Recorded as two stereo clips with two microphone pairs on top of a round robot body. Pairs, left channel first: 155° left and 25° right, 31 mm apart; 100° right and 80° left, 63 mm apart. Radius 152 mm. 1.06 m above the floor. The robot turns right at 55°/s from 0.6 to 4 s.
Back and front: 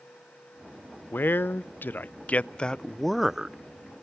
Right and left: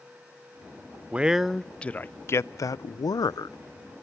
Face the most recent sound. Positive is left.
turn(degrees=-60)